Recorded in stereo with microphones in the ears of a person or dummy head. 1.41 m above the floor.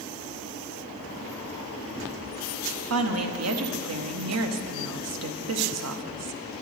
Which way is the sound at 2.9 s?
80° right.